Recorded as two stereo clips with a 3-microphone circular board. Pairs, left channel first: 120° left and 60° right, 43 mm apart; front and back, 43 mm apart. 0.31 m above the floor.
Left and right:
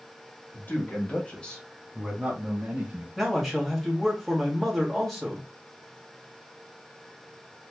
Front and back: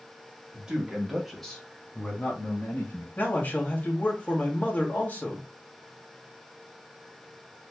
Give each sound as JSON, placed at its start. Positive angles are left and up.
{"t": 0.5, "sound": "a man speaking", "azimuth_deg": 115, "distance_m": 1.8}
{"t": 3.2, "sound": "a man speaking", "azimuth_deg": 30, "distance_m": 1.9}